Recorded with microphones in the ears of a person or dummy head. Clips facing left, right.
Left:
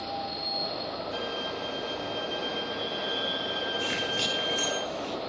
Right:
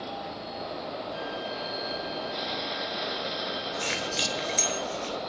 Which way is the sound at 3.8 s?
50° right (ahead or behind).